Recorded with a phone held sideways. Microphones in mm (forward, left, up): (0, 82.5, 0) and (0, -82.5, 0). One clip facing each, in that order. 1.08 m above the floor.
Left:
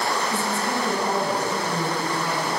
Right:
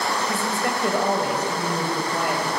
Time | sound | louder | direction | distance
0.3 | a woman speaking | even | 75° right (ahead or behind) | 5 m